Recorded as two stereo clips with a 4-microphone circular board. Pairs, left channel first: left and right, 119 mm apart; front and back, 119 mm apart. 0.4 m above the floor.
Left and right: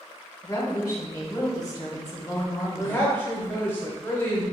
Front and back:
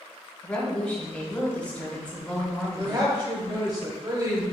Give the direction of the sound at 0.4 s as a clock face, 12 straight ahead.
10 o'clock.